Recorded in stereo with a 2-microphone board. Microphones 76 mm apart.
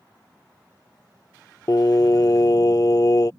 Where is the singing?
50° left (ahead or behind).